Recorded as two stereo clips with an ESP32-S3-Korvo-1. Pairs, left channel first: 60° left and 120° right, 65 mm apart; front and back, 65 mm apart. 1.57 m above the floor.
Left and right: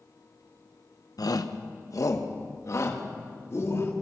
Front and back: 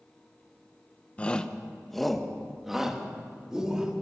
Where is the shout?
70° left, 1.4 m; by 3.9 s 105° left, 4 m.